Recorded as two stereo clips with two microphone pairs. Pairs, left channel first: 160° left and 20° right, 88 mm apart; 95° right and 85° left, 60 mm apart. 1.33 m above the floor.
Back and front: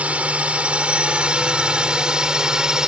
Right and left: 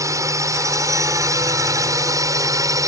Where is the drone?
55° left; by 2.9 s 65° left.